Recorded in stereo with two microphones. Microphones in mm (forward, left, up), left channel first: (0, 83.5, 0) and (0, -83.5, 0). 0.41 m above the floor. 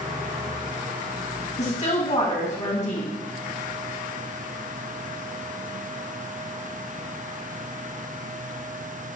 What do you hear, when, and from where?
1.6 s a woman speaking: 45° left (ahead or behind), 2.5 m